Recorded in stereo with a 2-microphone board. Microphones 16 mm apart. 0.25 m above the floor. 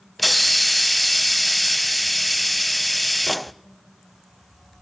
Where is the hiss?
5° left (ahead or behind), 0.6 m.